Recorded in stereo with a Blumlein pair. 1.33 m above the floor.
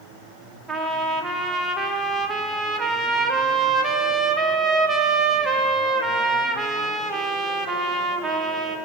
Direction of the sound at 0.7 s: 15° right.